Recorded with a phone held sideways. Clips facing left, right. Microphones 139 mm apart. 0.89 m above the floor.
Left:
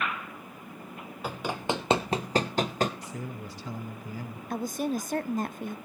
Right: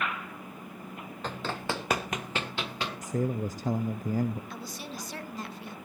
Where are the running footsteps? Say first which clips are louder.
Left 3 dB; 10° left (ahead or behind), 1.7 m; by 2.9 s 45° left (ahead or behind), 1.3 m.